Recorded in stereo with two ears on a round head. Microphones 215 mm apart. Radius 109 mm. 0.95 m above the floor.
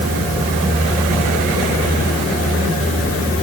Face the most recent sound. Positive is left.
No sound to turn to.